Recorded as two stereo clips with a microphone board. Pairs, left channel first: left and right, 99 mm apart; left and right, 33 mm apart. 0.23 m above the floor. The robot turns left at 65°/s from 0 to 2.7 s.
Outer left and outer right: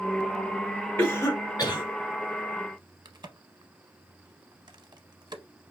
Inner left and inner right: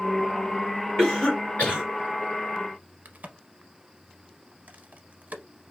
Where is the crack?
45° right (ahead or behind), 0.7 m.